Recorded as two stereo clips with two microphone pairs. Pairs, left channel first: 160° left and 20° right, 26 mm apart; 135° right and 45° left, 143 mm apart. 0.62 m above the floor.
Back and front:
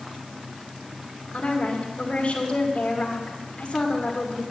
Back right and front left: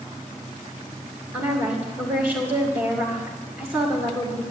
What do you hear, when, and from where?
1.3 s a woman speaking: 115° left, 2 m